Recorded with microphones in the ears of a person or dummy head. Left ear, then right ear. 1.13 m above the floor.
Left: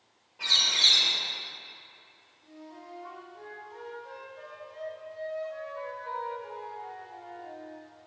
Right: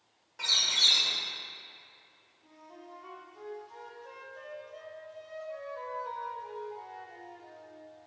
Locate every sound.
0.4 s a bird: 55° right (ahead or behind), 2 m
2.4 s a flute: 85° right, 2.5 m